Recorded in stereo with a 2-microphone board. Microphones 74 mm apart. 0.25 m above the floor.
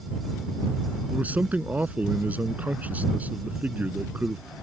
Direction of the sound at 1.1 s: 20° right (ahead or behind).